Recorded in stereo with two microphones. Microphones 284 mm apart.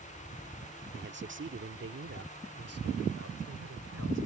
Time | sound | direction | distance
0.9 | a man speaking | 35° right (ahead or behind) | ?